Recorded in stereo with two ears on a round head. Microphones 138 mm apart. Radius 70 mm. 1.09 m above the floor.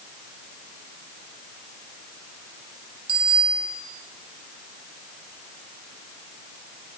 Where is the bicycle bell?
35° right (ahead or behind), 7.5 m.